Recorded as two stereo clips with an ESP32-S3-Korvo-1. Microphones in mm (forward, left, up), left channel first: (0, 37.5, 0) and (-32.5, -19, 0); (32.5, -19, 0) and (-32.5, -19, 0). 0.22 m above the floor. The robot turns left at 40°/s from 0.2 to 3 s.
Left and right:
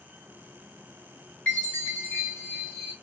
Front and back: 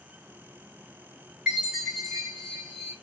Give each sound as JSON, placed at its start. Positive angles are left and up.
{"t": 1.5, "sound": "a chime", "azimuth_deg": 110, "distance_m": 1.6}